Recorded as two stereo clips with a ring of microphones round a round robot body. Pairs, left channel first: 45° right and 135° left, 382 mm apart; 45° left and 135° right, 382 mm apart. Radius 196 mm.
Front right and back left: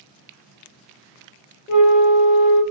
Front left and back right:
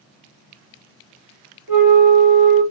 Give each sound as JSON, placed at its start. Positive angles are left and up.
{"t": 1.7, "sound": "a flute", "azimuth_deg": -120, "distance_m": 1.6}